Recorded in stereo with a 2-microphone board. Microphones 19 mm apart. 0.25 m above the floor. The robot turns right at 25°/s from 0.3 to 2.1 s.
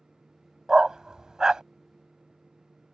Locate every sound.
0.7 s a dog barking: 40° right (ahead or behind); by 1.6 s 45° right (ahead or behind)